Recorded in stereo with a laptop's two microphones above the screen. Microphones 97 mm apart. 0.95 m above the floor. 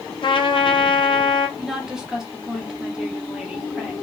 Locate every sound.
0.2 s a trumpet: 55° left (ahead or behind), 0.6 m
1.6 s a woman speaking: 5° right (ahead or behind), 1.3 m